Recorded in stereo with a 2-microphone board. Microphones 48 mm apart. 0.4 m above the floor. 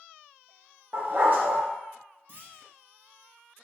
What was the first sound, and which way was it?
A dog barking, 45° right (ahead or behind).